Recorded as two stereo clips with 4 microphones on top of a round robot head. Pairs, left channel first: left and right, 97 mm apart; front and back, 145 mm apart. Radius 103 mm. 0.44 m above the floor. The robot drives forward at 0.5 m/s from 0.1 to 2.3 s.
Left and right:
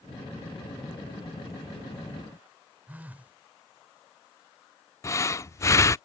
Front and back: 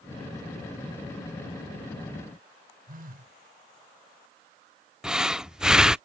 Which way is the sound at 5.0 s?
95° left.